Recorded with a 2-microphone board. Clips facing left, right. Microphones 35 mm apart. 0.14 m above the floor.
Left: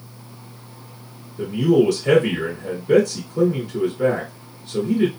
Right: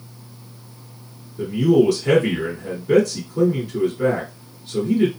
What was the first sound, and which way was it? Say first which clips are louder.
A man speaking: right 1 dB; centre (ahead or behind).